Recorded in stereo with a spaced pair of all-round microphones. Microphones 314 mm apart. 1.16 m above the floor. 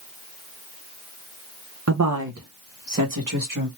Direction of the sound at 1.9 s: 50° right (ahead or behind).